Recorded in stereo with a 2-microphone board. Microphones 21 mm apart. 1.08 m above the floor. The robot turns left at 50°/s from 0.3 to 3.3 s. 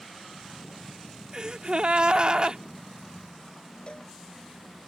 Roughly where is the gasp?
Ahead right.